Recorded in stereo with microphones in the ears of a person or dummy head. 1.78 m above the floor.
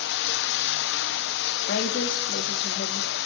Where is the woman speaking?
55° left (ahead or behind), 3 m.